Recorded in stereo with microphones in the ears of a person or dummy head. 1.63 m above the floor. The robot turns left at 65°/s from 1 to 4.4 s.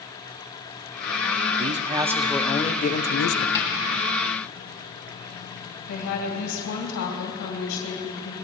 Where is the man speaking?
135° right, 0.7 m; by 3.5 s 105° left, 0.7 m.